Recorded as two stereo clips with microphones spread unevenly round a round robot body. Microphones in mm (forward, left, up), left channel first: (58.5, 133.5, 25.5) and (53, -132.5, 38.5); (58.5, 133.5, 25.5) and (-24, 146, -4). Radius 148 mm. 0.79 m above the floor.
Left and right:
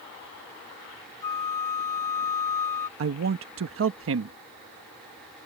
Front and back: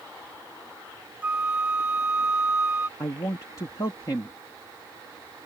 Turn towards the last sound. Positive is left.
turn(degrees=-80)